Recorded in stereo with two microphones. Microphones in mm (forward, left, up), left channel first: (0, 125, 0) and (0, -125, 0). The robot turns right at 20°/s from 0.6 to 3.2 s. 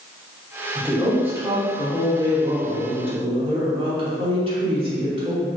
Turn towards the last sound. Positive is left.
turn(degrees=-25)  # may be behind; listen again after turning